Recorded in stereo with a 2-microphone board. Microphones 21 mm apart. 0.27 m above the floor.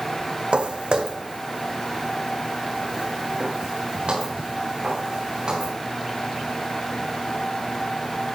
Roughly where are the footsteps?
Right.